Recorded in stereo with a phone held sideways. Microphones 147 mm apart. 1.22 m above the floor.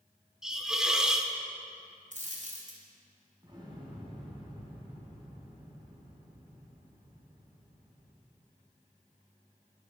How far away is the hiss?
About 1.2 m.